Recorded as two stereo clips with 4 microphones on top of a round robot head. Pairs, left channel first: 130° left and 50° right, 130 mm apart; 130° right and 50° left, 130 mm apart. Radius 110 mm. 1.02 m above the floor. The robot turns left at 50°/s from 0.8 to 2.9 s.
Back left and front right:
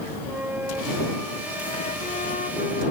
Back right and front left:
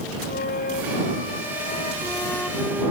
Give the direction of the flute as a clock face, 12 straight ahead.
4 o'clock.